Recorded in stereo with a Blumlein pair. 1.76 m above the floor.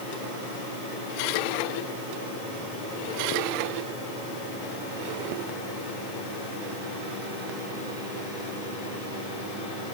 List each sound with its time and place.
Only background noise.